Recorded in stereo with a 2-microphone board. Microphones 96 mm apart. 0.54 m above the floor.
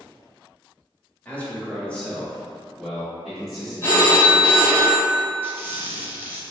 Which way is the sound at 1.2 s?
15° left (ahead or behind).